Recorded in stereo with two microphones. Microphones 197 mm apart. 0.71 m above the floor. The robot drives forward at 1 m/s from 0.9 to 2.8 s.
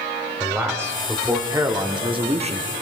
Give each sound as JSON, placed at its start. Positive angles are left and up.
{"t": 0.4, "sound": "a man speaking", "side_deg": -10, "distance_m": 2.0}